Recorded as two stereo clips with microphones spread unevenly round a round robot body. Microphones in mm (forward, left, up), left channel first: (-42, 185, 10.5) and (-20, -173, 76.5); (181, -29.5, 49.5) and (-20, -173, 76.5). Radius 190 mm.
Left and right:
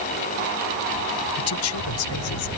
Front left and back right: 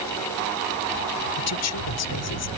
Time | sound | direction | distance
1.4 | a man speaking | 45° left | ?